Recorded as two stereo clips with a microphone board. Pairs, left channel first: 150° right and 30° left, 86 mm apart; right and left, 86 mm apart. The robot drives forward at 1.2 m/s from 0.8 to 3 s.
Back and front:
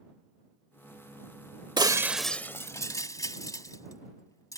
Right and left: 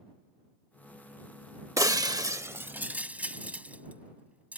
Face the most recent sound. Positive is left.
turn(degrees=160)